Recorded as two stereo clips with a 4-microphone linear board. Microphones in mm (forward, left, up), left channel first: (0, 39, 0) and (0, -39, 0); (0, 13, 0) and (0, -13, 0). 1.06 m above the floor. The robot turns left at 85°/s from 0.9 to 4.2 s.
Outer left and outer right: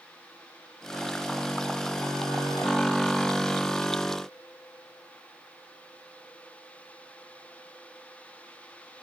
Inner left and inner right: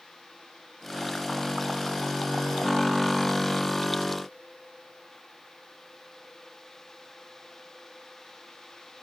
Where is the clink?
No clink in this recording.